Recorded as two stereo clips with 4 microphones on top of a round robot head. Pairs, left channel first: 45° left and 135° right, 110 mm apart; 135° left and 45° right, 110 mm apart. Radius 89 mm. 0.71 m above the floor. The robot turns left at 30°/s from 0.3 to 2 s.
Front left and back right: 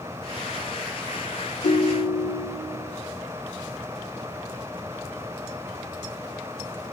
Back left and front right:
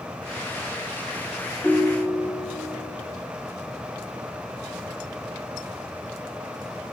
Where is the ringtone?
50° left, 0.7 m; by 2.6 s 40° left, 0.7 m.